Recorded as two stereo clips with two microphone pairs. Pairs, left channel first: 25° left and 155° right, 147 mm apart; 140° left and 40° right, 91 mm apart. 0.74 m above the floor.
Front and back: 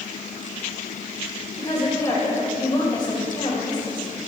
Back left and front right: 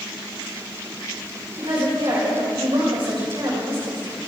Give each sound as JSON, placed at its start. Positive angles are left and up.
{"t": 1.6, "sound": "a woman speaking", "azimuth_deg": -35, "distance_m": 3.5}